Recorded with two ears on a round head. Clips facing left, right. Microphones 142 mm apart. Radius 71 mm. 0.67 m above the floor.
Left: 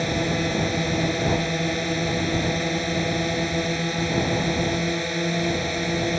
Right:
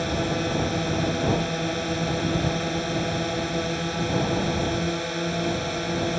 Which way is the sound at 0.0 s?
10° left (ahead or behind).